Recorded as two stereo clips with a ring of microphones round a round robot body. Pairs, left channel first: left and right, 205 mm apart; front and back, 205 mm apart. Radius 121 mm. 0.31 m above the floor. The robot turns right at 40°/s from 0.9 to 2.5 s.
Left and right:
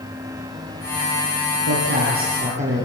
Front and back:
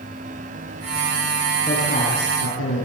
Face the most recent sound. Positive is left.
turn(degrees=-35)